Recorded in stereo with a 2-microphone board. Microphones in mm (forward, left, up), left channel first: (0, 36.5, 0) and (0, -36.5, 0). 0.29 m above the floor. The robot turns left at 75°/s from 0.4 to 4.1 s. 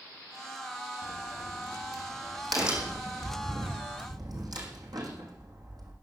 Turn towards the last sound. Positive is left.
turn(degrees=-60)  # may be behind; listen again after turning